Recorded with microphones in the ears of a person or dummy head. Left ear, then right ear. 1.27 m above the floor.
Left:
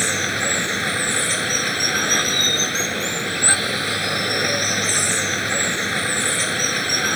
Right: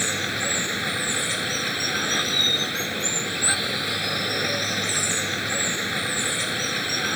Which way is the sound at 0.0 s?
15° left (ahead or behind).